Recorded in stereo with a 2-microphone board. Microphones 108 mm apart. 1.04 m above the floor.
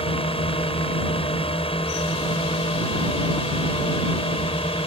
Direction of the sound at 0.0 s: 60° left (ahead or behind).